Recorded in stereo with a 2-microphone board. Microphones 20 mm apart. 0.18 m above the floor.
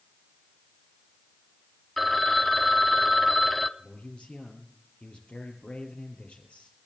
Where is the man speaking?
75° left (ahead or behind), 4 m.